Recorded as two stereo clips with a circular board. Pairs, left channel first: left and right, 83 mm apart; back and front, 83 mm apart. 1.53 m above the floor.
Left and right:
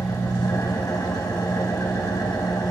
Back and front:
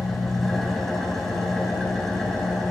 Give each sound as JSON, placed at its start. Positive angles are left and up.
{"t": 0.0, "sound": "an engine running", "azimuth_deg": 95, "distance_m": 1.8}